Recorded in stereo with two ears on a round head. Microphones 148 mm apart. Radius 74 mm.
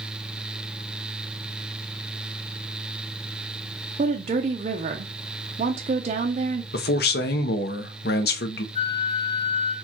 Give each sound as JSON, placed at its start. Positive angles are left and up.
{"t": 4.0, "sound": "a woman speaking", "side_deg": -40, "distance_m": 0.6}
{"t": 6.7, "sound": "a man speaking", "side_deg": 65, "distance_m": 0.8}
{"t": 8.8, "sound": "a flute", "side_deg": 35, "distance_m": 0.9}